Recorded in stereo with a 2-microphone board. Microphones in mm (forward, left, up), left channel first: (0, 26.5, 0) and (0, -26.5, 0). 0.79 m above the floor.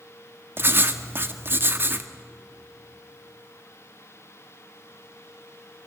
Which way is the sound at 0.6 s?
40° right (ahead or behind).